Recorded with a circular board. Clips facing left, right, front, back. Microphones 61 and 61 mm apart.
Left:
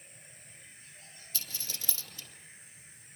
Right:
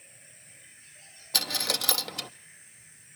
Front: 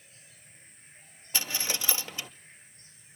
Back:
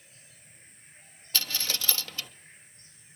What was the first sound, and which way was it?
A dropped coin, 70° right.